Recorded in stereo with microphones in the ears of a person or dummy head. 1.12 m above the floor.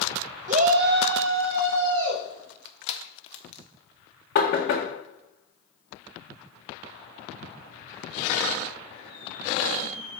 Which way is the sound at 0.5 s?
35° right (ahead or behind).